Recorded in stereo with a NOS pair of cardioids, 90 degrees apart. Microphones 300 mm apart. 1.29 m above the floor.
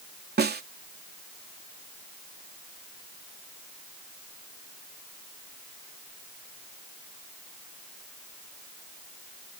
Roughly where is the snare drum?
Ahead right.